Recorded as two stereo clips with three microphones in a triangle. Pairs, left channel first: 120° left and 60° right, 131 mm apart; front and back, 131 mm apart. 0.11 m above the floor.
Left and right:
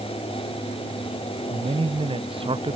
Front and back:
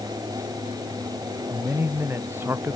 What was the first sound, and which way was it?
A man speaking, 105° right.